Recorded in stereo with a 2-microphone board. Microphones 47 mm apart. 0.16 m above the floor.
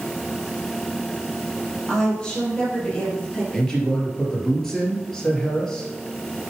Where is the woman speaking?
10° left (ahead or behind), 4 m; by 3.4 s 20° left (ahead or behind), 5.5 m.